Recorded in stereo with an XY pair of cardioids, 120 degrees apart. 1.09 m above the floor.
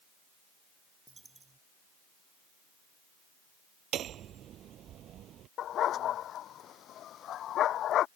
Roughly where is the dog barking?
Ahead left.